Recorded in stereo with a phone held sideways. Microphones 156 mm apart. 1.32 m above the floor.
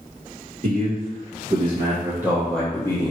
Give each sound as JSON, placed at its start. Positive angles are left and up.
{"t": 0.6, "sound": "a man speaking", "side_deg": -60, "distance_m": 1.3}